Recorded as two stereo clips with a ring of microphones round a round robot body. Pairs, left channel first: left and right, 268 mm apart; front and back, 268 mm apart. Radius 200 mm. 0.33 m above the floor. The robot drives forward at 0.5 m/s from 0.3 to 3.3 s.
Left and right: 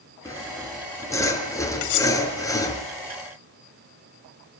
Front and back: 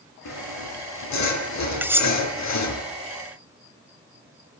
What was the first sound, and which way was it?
Sawing, 10° left.